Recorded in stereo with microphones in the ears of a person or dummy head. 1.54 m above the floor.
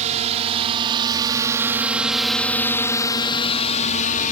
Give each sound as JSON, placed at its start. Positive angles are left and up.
{"t": 0.0, "sound": "a drone", "side_deg": -40}